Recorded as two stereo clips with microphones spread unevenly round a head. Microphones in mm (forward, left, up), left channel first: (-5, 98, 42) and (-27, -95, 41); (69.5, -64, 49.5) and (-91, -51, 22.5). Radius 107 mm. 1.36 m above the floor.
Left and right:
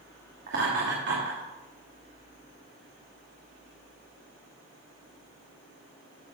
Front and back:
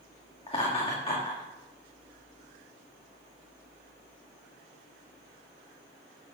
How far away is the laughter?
About 2.5 m.